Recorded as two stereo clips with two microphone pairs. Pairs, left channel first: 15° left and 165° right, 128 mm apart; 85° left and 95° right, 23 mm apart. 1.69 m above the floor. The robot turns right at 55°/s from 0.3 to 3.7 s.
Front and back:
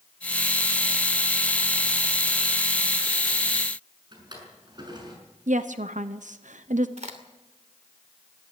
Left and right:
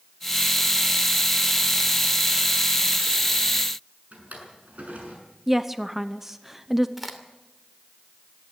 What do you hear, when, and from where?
4.1 s a drawer: 110° right, 6.5 m
5.5 s a woman speaking: 175° right, 0.8 m
7.0 s a crack: 175° right, 2.5 m